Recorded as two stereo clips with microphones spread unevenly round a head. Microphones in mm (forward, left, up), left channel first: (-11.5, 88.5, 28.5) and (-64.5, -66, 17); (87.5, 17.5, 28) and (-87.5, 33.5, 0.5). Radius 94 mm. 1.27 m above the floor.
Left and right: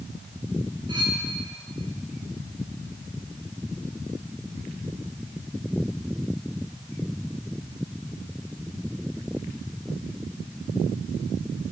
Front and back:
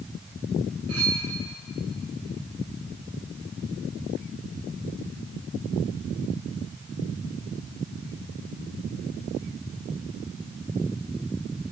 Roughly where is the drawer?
I don't hear a drawer.